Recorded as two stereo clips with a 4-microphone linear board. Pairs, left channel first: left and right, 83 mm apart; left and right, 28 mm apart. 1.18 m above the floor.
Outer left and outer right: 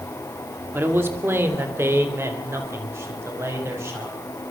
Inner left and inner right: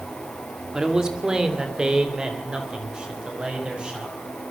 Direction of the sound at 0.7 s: 30° right (ahead or behind).